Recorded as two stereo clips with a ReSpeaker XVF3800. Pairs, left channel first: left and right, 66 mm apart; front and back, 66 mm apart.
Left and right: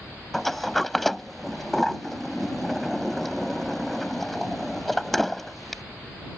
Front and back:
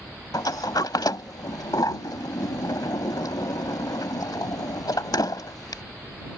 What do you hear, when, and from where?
0.3 s a sliding door: 5° left